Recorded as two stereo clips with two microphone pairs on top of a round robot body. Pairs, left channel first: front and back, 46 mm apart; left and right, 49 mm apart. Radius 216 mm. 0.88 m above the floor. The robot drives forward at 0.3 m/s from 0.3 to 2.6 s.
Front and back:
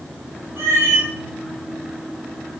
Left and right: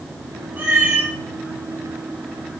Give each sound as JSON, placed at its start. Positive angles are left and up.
{"t": 0.6, "sound": "a cat meowing", "azimuth_deg": -145, "distance_m": 1.7}